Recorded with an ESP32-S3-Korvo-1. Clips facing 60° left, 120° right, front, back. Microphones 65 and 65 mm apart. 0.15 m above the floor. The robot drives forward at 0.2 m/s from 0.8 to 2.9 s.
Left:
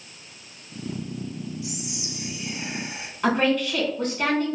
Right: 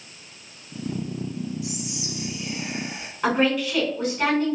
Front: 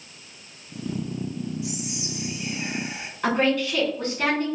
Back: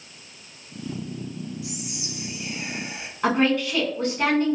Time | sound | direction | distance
1.6 | whispering | 60° left | 1.8 m
3.2 | a woman speaking | 165° left | 1.4 m